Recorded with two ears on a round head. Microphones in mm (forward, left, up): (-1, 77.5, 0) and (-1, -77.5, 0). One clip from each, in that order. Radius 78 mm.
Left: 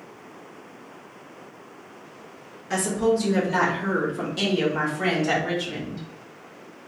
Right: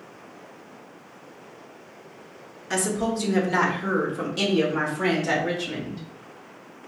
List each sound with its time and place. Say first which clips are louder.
2.7 s a woman speaking: left 3 dB; 25° right (ahead or behind), 0.9 m; by 6.0 s 5° right (ahead or behind), 2.5 m